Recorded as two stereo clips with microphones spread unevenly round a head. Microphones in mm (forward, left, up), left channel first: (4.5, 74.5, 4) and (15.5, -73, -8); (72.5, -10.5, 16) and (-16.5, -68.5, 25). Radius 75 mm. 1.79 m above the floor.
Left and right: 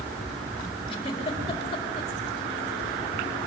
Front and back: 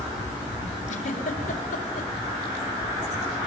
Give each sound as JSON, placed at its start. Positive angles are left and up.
{"t": 0.9, "sound": "a giggle", "azimuth_deg": 40, "distance_m": 4.0}